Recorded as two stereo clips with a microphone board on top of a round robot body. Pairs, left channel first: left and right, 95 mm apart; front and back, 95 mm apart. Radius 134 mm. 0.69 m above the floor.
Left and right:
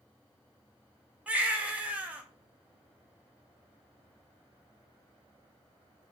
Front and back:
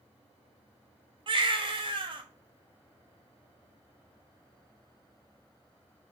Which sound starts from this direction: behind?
A baby crying, at 1.3 s.